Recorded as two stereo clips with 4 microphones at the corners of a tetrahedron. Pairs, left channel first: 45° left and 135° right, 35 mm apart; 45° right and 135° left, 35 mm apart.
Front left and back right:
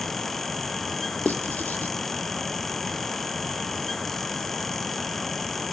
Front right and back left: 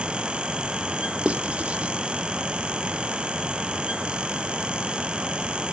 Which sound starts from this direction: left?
Writing, at 1.2 s.